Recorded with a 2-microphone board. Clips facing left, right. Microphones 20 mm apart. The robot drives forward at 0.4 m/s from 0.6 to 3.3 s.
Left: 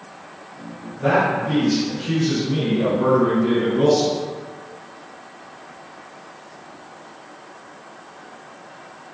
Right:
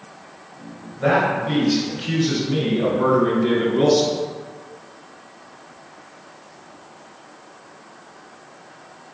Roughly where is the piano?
No piano in this recording.